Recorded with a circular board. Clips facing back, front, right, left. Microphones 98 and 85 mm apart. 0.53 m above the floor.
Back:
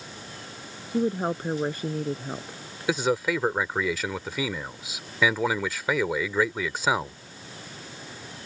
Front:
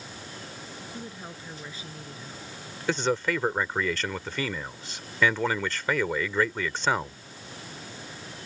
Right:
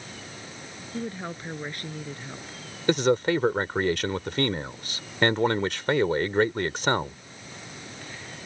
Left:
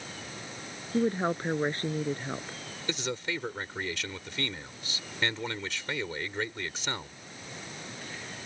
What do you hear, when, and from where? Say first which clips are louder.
0.9 s a woman speaking: back 20 dB, left 7 dB; 145° left
2.9 s a man speaking: back 2 dB, right 13 dB; 100° right